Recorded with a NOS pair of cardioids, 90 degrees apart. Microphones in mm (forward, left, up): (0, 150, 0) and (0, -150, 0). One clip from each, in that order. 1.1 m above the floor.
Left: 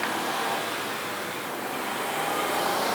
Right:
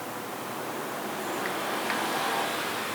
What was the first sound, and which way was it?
Only background noise.